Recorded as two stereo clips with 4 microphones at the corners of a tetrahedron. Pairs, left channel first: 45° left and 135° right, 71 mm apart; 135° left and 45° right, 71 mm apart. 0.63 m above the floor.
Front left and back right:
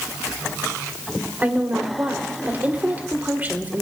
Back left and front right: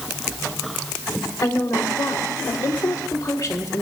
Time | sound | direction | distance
1.4 | a woman speaking | 165° left | 2.5 m